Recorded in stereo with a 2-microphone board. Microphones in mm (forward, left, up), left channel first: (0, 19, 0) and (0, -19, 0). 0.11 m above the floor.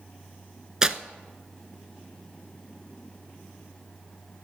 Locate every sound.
0.8 s tearing paper: 20° right (ahead or behind), 0.6 m